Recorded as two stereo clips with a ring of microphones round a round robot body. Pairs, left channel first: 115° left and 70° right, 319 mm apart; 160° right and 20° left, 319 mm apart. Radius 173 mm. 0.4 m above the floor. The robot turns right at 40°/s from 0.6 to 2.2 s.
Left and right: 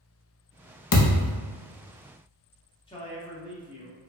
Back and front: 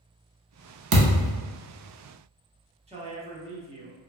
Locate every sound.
0.9 s a thud: 70° left, 0.6 m; by 1.4 s 90° left, 0.6 m
2.9 s a man speaking: 60° left, 0.8 m